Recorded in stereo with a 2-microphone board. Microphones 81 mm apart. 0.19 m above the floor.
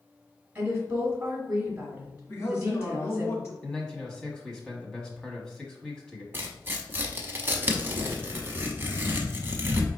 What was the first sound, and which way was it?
A woman speaking, 10° right (ahead or behind).